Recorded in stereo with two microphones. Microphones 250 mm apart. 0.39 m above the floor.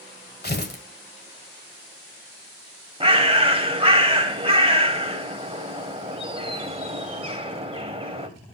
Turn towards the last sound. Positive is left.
turn(degrees=-20)  # may be behind; listen again after turning